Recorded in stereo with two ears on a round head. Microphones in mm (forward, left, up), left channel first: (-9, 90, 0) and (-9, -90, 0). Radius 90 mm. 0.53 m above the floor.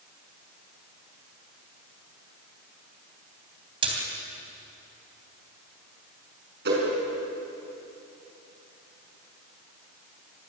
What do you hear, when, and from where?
3.8 s a splash: 25° right (ahead or behind), 3.5 m
6.7 s a whoosh: 55° right (ahead or behind), 6 m